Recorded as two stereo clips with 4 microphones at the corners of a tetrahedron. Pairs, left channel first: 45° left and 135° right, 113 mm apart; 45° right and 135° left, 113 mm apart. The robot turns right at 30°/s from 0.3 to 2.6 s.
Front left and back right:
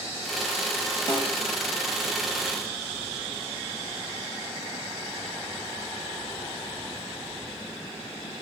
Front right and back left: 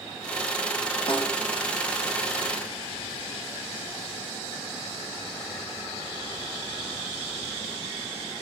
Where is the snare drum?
5° right, 4 m; by 1.4 s straight ahead, 4 m.